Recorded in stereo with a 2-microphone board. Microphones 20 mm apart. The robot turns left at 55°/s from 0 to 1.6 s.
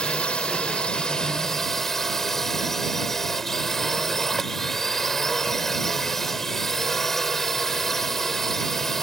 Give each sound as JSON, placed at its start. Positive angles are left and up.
{"t": 0.0, "sound": "a drone", "azimuth_deg": 100}